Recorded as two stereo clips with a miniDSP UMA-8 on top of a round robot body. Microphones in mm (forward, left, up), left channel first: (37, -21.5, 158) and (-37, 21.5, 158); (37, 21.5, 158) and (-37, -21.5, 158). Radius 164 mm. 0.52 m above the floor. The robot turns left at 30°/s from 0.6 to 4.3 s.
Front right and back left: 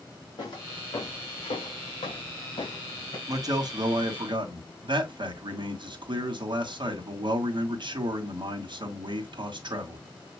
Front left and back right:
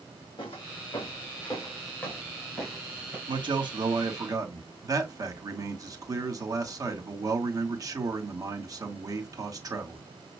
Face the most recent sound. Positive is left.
turn(degrees=165)